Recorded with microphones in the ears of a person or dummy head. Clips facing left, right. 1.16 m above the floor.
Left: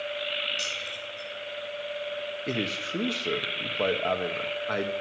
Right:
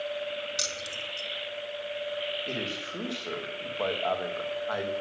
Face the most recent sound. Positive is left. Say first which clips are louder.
# left 4 dB
turn(degrees=35)  # may be behind; listen again after turning